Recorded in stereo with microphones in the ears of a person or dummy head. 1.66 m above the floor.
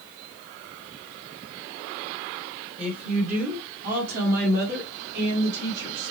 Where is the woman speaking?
30° right (ahead or behind), 1.4 m; by 6.1 s 65° right (ahead or behind), 3 m.